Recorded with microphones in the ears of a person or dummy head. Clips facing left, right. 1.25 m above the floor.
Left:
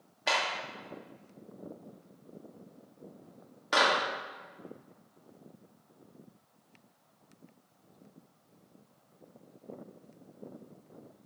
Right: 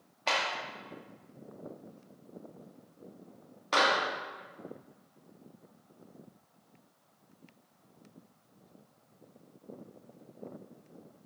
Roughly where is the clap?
Centre.